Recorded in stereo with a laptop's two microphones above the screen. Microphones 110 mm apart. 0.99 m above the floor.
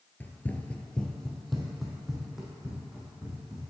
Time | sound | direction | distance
0.2 | running footsteps | 15° left (ahead or behind) | 1.0 m